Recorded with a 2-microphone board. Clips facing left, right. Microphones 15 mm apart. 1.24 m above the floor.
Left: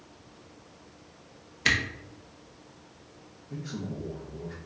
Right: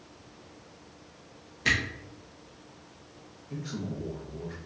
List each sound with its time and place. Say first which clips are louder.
1.6 s a camera shutter: left 1 dB; 40° left (ahead or behind), 0.8 m
3.5 s a man speaking: right 1 dB; 20° right (ahead or behind), 1.2 m